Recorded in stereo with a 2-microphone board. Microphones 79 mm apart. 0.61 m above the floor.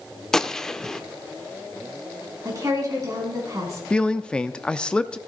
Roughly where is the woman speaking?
Right.